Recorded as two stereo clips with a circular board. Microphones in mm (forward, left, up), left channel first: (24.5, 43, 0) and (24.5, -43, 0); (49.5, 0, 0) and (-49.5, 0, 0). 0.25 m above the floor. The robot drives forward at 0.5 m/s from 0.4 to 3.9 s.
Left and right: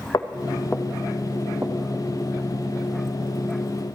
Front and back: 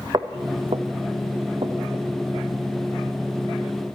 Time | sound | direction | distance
0.1 | footsteps | 135° left | 1.3 m